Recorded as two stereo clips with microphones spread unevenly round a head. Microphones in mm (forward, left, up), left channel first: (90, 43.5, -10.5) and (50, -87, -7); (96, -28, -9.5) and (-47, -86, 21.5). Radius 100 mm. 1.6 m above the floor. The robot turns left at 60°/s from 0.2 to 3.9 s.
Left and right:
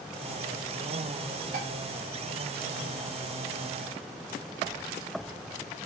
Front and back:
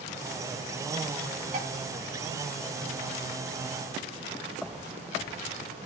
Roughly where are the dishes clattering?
Behind right.